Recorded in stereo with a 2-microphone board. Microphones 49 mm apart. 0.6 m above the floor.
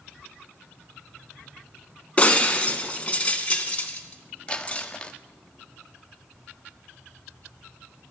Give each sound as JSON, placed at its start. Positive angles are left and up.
{"t": 2.2, "sound": "breaking glass", "side_deg": 25, "distance_m": 1.6}
{"t": 4.5, "sound": "crumpling", "side_deg": 20, "distance_m": 0.8}